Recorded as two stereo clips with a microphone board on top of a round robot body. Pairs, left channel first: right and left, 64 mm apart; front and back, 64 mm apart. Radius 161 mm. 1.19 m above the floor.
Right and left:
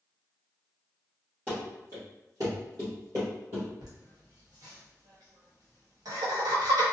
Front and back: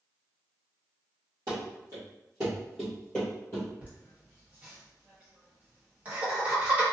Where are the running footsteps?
150° left, 1.5 m; by 3.7 s 50° left, 1.3 m.